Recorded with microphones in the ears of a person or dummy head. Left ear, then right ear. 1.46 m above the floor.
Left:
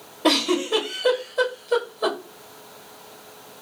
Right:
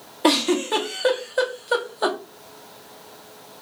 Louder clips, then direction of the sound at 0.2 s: Right 1 dB; 40° right (ahead or behind).